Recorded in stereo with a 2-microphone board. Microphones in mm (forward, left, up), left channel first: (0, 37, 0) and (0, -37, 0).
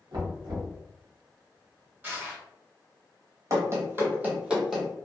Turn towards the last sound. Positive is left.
turn(degrees=5)  # may be behind; listen again after turning